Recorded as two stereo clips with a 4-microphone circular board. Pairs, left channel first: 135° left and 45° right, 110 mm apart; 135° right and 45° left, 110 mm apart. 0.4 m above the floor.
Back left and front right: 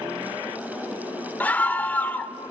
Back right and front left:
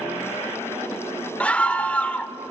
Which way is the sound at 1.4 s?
175° left.